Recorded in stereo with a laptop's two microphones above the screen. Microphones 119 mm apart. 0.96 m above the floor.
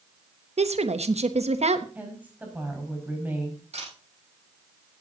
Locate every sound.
0.6 s a woman speaking: 65° right (ahead or behind), 1.1 m
1.9 s a woman speaking: 15° right (ahead or behind), 6 m
3.7 s a camera shutter: 65° right (ahead or behind), 7 m